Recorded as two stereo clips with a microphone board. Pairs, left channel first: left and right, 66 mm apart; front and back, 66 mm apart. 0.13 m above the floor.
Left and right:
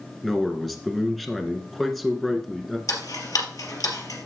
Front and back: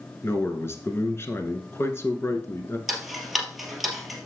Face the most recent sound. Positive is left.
turn(degrees=95)